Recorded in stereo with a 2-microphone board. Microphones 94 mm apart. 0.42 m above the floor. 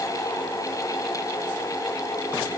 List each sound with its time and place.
Only background noise.